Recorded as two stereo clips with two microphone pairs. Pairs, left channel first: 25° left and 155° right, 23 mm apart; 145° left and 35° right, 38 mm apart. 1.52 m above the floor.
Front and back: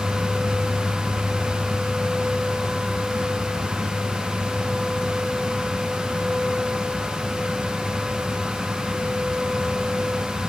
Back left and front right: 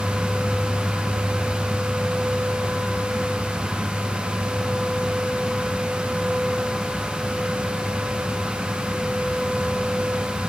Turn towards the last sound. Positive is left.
No sound to turn to.